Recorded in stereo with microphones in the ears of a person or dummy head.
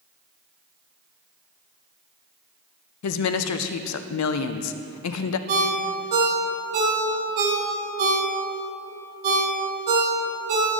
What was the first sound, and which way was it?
A woman speaking, 70° left (ahead or behind).